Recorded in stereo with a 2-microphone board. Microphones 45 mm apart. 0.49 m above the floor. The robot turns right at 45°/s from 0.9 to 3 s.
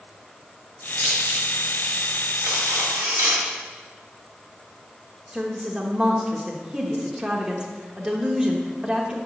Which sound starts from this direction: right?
Cutlery clinking, at 2.4 s.